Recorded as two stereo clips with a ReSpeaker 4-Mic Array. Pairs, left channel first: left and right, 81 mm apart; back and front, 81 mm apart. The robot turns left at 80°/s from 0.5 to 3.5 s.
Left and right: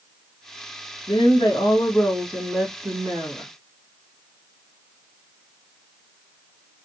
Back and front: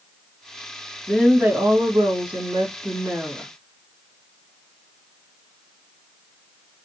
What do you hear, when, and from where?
1.1 s a woman speaking: 100° left, 1.8 m; by 3.5 s 95° right, 1.8 m